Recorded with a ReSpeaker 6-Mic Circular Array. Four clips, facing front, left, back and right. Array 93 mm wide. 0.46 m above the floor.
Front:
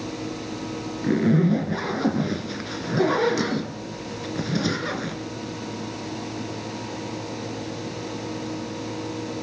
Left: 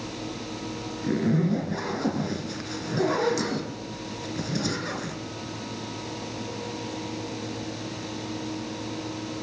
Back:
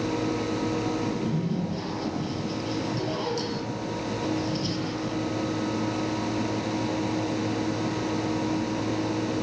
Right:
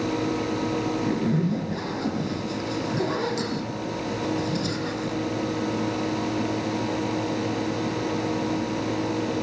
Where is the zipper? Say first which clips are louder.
Even, front 8 dB; 10° left, 2.5 m.